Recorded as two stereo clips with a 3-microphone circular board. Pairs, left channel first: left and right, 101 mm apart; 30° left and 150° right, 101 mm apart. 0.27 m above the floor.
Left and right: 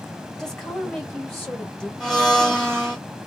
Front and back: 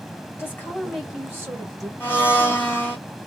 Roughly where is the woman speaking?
Ahead.